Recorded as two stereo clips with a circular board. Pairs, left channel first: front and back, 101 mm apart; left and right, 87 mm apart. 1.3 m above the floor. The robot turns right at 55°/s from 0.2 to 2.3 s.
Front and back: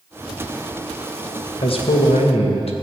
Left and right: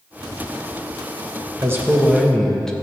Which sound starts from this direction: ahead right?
A man speaking, at 1.6 s.